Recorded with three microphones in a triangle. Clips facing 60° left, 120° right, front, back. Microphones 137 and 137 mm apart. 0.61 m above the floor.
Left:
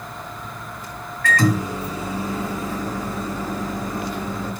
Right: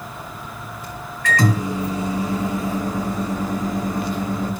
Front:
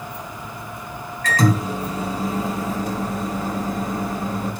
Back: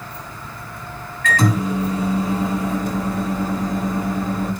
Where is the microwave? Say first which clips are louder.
Even, back 1 dB; 50° right, 1.6 m.